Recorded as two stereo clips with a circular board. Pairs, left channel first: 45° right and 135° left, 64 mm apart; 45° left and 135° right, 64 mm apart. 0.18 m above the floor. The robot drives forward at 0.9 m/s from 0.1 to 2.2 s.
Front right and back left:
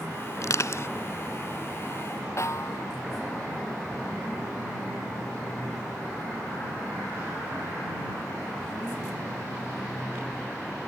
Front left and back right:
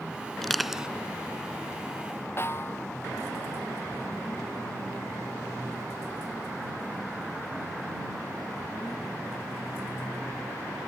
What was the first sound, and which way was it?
Crushing, 35° right.